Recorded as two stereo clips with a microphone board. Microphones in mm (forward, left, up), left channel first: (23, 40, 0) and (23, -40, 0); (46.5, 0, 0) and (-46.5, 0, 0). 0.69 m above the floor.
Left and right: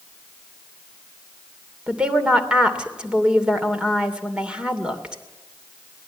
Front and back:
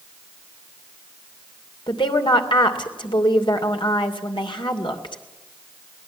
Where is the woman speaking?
10° right, 2.5 m.